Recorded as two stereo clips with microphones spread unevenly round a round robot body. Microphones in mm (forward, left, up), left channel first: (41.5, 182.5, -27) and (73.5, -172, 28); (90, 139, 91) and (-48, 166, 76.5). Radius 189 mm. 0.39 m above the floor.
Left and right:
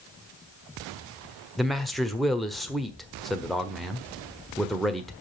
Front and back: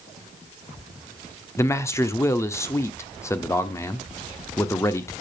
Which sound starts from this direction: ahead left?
A man speaking, at 1.6 s.